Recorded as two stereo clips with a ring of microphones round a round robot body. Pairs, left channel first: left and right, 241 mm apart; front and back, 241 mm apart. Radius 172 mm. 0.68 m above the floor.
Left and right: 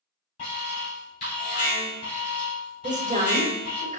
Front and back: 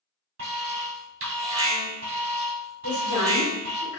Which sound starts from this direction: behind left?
An alarm, at 0.4 s.